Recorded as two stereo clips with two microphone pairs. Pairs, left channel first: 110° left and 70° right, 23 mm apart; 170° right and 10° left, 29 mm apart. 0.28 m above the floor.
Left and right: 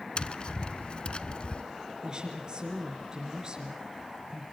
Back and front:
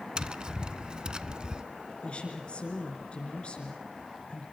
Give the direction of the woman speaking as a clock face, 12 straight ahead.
4 o'clock.